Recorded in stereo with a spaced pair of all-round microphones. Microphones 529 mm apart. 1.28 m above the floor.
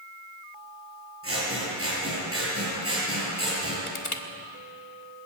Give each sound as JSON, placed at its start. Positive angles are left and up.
{"t": 1.2, "sound": "scissors", "side_deg": -25, "distance_m": 8.0}
{"t": 3.9, "sound": "crushing", "side_deg": 70, "distance_m": 1.4}